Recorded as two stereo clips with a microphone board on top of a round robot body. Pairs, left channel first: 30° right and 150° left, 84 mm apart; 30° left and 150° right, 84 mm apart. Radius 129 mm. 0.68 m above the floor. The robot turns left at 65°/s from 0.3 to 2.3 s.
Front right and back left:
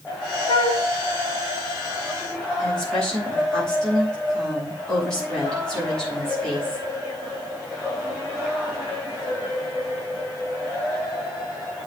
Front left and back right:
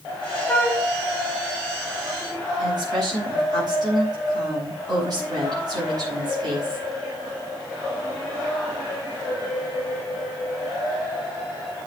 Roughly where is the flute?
Ahead right.